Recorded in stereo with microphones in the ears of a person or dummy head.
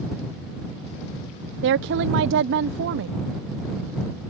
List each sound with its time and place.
1.6 s a woman speaking: 65° right (ahead or behind)